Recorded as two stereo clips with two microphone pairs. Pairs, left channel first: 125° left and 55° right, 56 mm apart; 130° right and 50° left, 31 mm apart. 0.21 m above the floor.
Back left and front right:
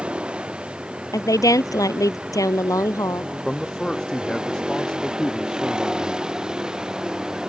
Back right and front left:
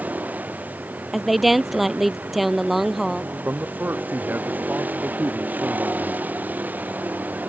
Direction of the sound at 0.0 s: 15° left.